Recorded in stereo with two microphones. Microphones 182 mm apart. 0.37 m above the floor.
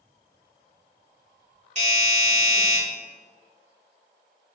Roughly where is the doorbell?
Right.